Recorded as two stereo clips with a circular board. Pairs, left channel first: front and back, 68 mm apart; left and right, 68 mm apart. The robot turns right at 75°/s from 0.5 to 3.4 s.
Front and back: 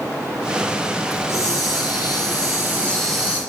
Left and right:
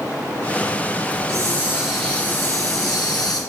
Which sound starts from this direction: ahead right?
A hiss, at 1.1 s.